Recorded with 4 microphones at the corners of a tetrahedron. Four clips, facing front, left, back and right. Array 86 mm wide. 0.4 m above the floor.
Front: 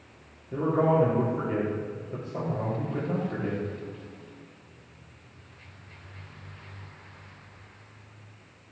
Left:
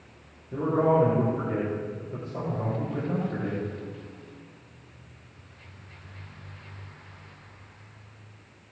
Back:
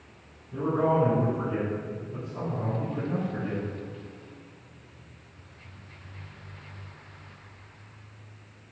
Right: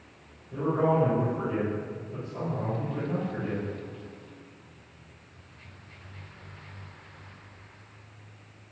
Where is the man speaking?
30° left, 6 m.